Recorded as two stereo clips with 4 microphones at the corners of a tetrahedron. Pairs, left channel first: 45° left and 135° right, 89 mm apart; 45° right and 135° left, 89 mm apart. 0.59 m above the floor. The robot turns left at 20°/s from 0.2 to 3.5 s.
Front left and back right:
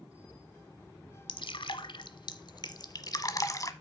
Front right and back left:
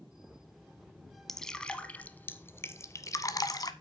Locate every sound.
1.3 s dripping: 40° left, 0.9 m; by 3.7 s 5° right, 0.9 m